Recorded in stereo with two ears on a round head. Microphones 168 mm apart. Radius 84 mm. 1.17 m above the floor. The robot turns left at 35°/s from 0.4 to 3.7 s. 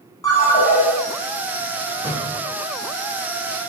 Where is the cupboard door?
45° left (ahead or behind), 1.6 m; by 2.5 s 30° left (ahead or behind), 1.6 m.